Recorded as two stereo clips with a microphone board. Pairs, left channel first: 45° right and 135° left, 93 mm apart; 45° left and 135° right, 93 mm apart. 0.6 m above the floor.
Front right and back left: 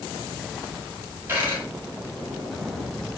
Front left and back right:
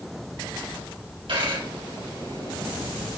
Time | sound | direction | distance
1.3 | a dropped coin | 160° right | 4 m